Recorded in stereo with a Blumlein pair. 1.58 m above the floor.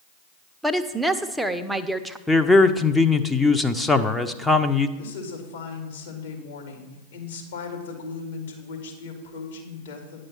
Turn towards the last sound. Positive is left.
turn(degrees=60)